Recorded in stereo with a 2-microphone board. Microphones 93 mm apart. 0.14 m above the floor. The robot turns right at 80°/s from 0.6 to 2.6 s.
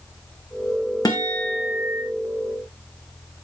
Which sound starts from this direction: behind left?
A guitar, at 1.1 s.